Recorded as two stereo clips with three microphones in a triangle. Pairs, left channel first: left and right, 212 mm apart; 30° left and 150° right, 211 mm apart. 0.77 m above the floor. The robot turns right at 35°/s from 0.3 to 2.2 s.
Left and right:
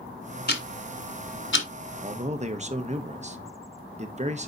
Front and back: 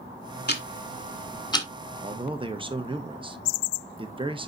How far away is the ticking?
About 1.4 m.